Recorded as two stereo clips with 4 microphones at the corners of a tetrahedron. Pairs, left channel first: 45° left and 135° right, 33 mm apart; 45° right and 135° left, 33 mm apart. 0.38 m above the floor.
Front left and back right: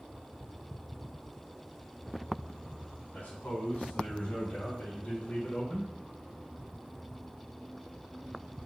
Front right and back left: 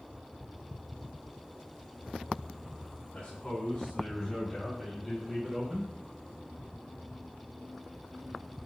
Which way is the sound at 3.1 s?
20° left.